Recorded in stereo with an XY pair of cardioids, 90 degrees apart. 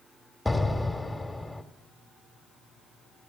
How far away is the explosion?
About 1.5 m.